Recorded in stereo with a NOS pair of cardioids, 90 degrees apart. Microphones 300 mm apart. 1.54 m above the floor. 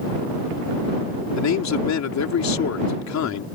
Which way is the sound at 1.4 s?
65° left.